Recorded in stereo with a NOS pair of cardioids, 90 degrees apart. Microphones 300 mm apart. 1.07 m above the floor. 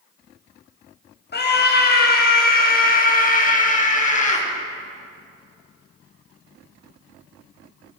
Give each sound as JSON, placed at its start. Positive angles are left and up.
{"t": 1.3, "sound": "a scream", "azimuth_deg": 35, "distance_m": 7.5}